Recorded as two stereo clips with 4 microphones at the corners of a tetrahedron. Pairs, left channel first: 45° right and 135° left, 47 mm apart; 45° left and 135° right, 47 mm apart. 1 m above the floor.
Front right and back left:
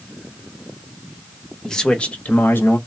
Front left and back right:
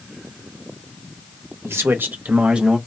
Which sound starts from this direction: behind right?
A man speaking, at 1.6 s.